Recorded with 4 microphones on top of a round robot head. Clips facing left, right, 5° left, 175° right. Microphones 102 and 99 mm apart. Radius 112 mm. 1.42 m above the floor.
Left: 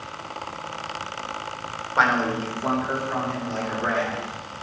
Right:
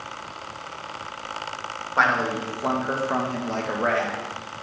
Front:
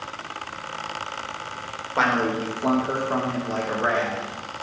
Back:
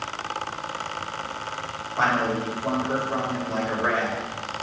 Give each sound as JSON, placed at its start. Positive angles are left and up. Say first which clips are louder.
{"t": 2.0, "sound": "a man speaking", "louder": "left 1 dB, front 1 dB", "azimuth_deg": 0, "distance_m": 2.0}